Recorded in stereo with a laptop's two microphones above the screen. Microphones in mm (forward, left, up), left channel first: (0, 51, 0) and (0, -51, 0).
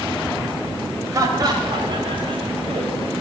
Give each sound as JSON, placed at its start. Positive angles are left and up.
{"t": 1.1, "sound": "laughter", "side_deg": -35, "distance_m": 4.5}